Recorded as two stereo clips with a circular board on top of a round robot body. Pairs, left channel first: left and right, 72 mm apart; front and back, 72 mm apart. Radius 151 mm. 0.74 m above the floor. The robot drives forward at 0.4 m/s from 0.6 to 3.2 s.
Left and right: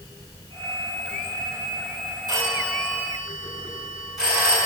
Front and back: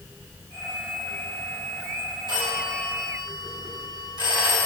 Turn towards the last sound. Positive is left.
turn(degrees=-170)